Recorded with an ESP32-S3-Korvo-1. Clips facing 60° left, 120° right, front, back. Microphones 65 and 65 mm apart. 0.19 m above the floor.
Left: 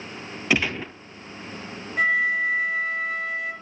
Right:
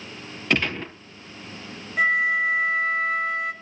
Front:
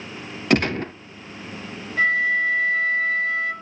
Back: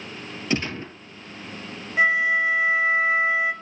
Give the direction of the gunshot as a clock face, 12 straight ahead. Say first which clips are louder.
Even, front 7 dB; 1 o'clock.